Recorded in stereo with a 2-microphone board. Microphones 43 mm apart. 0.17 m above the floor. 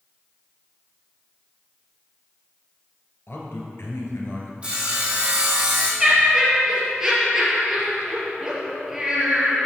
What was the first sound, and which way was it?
A man speaking, 65° left (ahead or behind).